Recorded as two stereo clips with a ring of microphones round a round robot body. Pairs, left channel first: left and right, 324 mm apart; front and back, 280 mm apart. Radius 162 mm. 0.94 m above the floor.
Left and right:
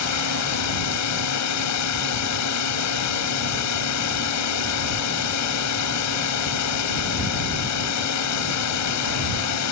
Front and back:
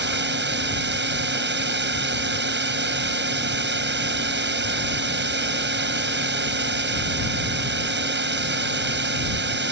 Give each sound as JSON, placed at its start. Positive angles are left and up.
{"t": 0.0, "sound": "a drone", "azimuth_deg": 130}